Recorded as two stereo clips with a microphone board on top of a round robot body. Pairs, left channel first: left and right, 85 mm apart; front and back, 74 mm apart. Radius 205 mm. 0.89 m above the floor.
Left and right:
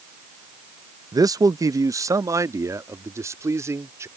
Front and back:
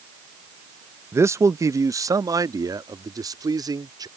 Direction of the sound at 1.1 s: 130° right.